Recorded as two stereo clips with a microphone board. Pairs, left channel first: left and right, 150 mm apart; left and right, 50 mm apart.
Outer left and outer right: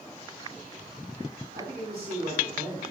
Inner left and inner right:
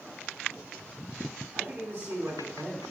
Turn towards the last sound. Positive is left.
turn(degrees=-80)